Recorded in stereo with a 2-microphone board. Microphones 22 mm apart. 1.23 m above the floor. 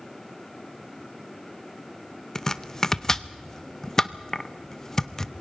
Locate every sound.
2.4 s chopping: 25° left (ahead or behind), 0.6 m